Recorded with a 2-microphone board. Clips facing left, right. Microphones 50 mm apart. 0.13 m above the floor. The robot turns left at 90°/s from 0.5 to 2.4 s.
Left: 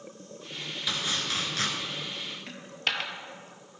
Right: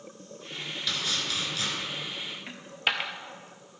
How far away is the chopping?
About 1.4 m.